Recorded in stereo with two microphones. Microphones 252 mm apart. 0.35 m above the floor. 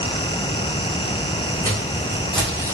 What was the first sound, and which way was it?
Footsteps, 15° left (ahead or behind).